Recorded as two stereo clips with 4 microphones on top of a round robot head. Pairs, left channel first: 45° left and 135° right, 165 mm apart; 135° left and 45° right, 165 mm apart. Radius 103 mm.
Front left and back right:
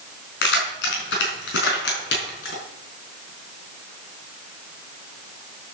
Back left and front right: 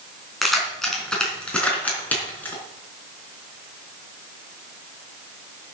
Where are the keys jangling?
50° left, 4 m; by 2.6 s 60° left, 4.5 m.